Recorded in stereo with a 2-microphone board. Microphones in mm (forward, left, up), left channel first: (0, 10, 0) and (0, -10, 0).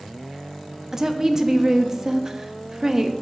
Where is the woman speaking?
20° right (ahead or behind), 0.6 m.